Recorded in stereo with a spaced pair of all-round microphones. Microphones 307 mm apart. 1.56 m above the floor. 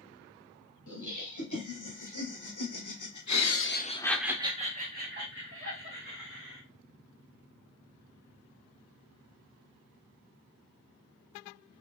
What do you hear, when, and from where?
0.9 s laughter: 70° left (ahead or behind), 2.0 m; by 6.6 s 45° right (ahead or behind), 1.9 m